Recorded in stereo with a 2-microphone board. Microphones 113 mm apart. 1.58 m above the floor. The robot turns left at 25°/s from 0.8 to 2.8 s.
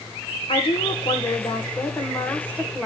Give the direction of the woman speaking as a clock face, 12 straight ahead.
10 o'clock.